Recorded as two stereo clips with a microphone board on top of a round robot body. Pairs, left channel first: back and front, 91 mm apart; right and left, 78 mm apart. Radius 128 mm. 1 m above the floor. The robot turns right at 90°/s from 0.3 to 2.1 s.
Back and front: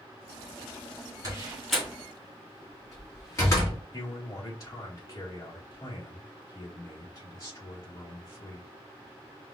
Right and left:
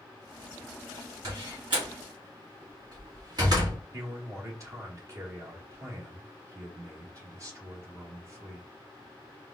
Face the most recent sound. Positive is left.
turn(degrees=135)